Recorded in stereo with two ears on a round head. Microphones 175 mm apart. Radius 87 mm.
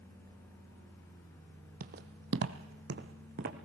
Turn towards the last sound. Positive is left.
turn(degrees=-50)  # may be behind; listen again after turning